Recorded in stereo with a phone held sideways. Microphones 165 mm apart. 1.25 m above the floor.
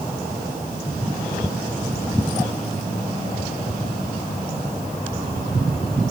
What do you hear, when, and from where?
Only background noise.